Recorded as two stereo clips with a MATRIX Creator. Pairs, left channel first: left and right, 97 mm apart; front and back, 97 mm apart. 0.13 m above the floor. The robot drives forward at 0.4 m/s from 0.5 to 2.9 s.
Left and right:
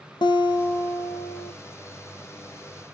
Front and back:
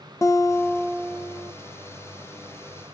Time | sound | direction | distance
0.2 | a guitar | 55° left | 1.1 m